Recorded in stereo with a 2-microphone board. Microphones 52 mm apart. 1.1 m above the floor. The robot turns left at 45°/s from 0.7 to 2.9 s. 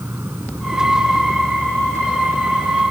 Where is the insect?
50° right; by 2.9 s 150° right.